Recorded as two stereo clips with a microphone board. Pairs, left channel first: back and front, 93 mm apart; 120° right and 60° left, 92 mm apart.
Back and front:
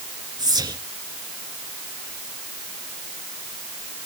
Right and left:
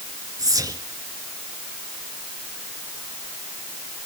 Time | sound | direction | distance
0.4 | whispering | 20° left | 2 m